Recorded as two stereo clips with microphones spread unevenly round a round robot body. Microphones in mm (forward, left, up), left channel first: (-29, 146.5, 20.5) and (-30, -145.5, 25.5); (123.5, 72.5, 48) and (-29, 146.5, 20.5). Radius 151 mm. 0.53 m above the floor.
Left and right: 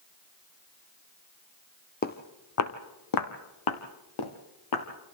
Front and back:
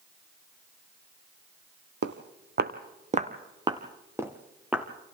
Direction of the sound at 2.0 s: 150° left.